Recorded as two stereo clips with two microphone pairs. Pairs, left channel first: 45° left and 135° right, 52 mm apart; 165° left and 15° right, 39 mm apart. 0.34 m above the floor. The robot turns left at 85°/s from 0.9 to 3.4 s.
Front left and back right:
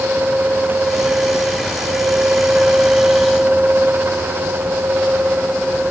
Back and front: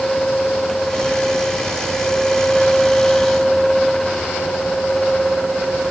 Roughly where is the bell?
I don't hear a bell.